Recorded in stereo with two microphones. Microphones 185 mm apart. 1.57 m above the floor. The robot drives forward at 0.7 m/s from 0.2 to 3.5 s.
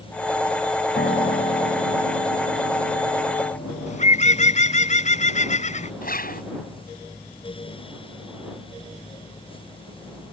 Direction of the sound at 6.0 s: 55° left (ahead or behind).